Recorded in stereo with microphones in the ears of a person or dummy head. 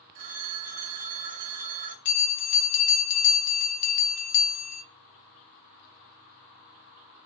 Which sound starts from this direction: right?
A phone ringing, at 0.1 s.